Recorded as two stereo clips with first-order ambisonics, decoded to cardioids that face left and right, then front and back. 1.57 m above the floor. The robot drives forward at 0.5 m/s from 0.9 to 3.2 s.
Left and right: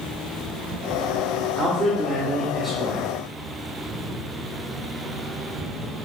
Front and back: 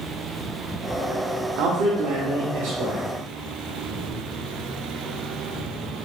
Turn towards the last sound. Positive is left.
turn(degrees=-170)